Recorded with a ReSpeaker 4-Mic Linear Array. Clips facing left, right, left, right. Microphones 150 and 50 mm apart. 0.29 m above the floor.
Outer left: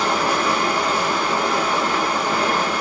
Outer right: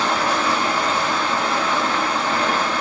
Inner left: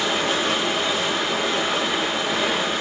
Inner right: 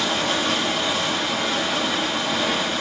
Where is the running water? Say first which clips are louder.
Outer left 1 dB, inner left 1 dB; 10° left (ahead or behind), 0.9 m.